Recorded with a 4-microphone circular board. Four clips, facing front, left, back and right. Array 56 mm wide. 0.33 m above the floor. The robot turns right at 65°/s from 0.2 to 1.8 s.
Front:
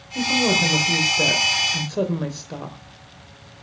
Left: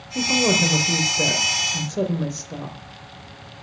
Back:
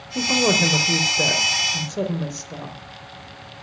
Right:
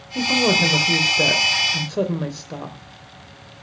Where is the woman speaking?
165° right, 1.3 m; by 2.8 s 60° right, 1.3 m.